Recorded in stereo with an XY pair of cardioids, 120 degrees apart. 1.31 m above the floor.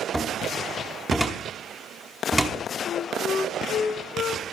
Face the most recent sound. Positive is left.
turn(degrees=55)